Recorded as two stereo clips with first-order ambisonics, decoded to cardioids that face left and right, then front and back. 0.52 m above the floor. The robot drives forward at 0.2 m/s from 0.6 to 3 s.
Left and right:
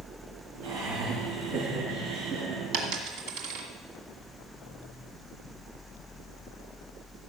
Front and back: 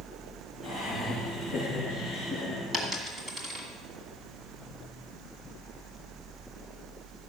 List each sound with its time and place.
0.6 s laughter: 95° right, 6 m; by 2.6 s 100° right, 6 m
2.7 s a dropped coin: 105° right, 1.9 m; by 3.7 s 110° right, 1.9 m